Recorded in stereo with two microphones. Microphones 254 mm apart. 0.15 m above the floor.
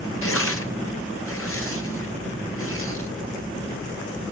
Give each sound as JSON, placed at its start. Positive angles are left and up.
{"t": 0.2, "sound": "tearing paper", "side_deg": 60, "distance_m": 1.3}